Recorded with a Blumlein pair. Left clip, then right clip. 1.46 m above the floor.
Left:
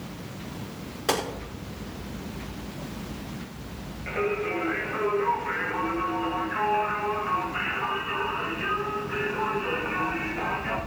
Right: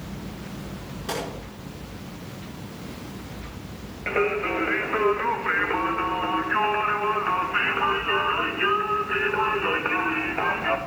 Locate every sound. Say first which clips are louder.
1.1 s a gunshot: left 4 dB; 65° left, 3.5 m
4.1 s singing: right 4 dB; 65° right, 1.6 m